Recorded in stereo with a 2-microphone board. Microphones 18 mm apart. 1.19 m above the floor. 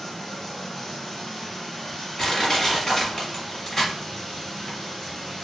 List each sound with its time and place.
0.0 s running water: 25° left (ahead or behind), 1.5 m
2.2 s crushing: 20° left (ahead or behind), 1.2 m